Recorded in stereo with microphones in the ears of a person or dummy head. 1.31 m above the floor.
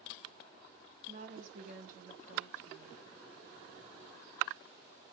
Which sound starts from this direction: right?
A woman speaking, at 1.1 s.